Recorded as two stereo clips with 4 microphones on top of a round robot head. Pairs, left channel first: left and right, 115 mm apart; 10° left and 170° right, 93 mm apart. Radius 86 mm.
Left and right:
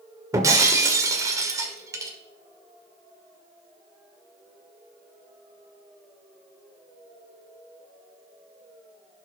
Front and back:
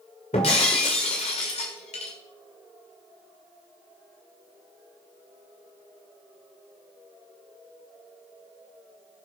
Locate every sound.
0.3 s breaking glass: 30° right, 1.8 m